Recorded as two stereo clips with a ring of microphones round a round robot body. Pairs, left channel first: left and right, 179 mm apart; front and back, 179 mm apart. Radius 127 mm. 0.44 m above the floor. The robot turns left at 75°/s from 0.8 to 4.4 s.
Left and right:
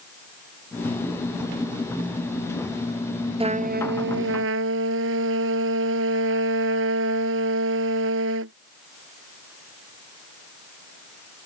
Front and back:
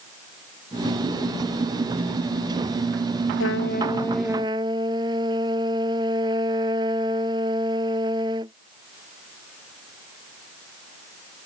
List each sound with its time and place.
3.4 s a trumpet: 30° right; by 8.5 s 105° right